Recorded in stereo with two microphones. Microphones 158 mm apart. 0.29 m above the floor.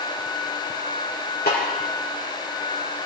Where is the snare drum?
80° left, 3.5 m.